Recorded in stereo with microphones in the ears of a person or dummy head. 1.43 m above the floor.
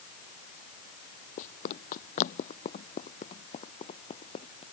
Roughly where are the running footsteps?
Left.